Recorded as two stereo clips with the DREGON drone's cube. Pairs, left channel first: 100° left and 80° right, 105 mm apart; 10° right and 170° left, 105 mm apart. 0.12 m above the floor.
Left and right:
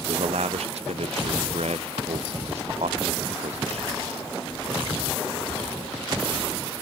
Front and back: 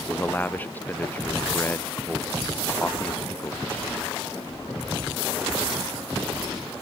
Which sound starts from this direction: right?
A man speaking, at 0.1 s.